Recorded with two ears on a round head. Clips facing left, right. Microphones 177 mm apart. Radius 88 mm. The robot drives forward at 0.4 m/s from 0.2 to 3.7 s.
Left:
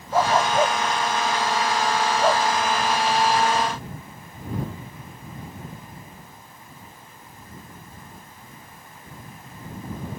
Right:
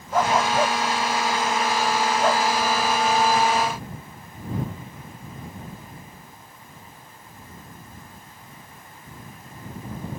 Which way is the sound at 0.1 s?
5° left (ahead or behind).